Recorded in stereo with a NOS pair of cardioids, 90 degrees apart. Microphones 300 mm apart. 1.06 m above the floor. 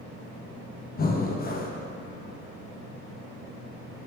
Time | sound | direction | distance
1.0 | breathing | 30° left | 0.8 m